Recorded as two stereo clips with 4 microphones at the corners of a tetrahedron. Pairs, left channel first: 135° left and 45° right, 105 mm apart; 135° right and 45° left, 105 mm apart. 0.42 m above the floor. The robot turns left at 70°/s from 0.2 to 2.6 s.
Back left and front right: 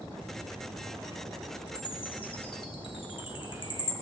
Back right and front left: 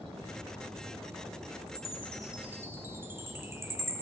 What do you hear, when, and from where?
1.7 s a chime: 175° left, 1.7 m; by 3.9 s 110° left, 1.7 m